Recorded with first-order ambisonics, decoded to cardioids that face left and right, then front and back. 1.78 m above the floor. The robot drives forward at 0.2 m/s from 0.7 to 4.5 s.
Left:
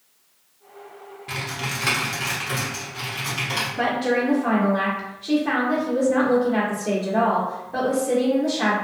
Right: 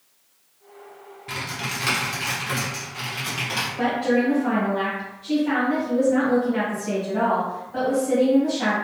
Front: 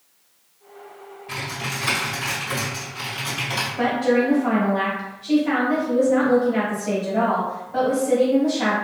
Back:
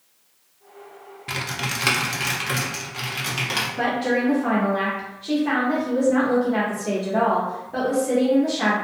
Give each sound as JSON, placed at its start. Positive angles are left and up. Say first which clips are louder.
{"t": 1.3, "sound": "typing on a keyboard", "louder": "left 1 dB, back 2 dB", "azimuth_deg": 180, "distance_m": 0.6}
{"t": 3.8, "sound": "a woman speaking", "louder": "even, front 5 dB", "azimuth_deg": 135, "distance_m": 0.8}